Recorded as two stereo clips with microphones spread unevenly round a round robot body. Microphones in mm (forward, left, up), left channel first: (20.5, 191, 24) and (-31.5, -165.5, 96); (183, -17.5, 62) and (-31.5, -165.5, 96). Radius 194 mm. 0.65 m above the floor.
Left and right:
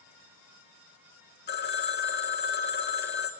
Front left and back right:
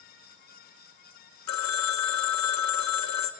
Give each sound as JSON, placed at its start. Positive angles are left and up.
{"t": 1.5, "sound": "a phone ringing", "azimuth_deg": 20, "distance_m": 1.4}